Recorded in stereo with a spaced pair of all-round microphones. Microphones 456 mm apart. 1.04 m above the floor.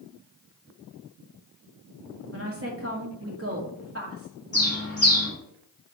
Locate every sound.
2.3 s a woman speaking: 30° right (ahead or behind), 2 m
4.5 s a bird: 20° left (ahead or behind), 4 m